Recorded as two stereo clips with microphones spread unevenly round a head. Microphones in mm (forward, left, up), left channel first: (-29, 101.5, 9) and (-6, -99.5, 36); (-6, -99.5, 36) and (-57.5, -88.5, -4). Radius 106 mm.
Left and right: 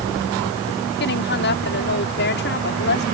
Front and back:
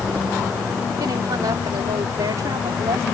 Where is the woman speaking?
135° left.